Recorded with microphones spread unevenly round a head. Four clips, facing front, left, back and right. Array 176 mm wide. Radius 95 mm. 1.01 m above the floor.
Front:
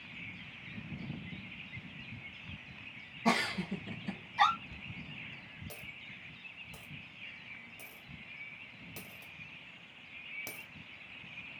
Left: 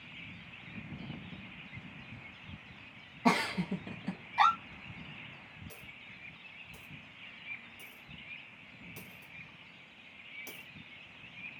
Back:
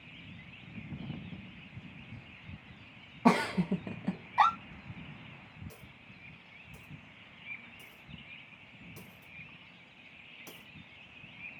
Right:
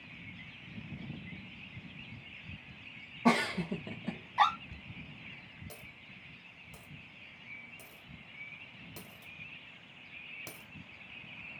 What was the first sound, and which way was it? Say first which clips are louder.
A giggle: right 1 dB, back 5 dB; 170° right.